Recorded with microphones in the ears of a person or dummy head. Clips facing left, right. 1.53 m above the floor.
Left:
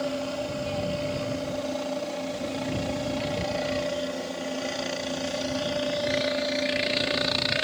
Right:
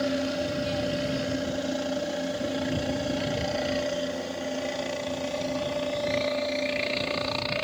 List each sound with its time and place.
0.0 s a helicopter: 20° right (ahead or behind); by 7.7 s 15° left (ahead or behind)